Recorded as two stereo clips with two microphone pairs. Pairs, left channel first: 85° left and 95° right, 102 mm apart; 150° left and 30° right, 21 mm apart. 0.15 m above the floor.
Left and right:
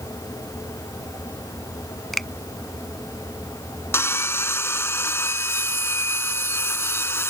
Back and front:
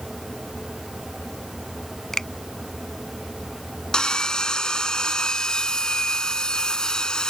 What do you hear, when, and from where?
2.1 s a finger snap: 175° left
3.9 s sawing: 135° left